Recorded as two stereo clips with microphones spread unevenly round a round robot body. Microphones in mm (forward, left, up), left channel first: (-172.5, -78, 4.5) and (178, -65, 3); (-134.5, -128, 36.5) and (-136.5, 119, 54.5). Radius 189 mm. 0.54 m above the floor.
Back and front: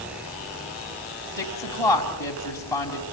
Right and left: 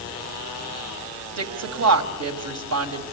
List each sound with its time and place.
1.4 s a woman speaking: 100° left, 3 m